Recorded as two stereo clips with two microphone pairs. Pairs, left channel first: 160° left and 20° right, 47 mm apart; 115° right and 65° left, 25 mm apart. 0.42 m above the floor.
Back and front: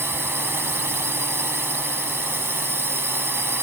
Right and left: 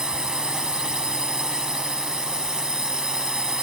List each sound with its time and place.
0.0 s a drone: 5° left